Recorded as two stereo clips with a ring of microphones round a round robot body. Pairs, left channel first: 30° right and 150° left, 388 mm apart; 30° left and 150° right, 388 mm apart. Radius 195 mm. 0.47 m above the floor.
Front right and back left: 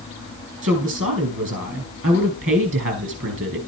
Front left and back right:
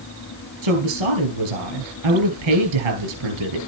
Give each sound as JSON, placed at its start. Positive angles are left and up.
{"t": 0.6, "sound": "a woman speaking", "azimuth_deg": -150, "distance_m": 5.0}